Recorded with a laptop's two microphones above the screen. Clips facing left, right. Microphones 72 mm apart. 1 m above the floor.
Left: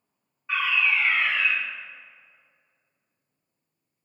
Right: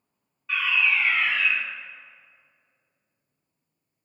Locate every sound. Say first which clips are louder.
0.5 s a fire alarm: even; 20° left (ahead or behind), 1.8 m